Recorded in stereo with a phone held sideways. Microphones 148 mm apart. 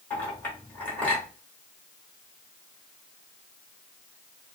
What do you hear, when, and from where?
0.1 s a clink: 10° left (ahead or behind), 2.5 m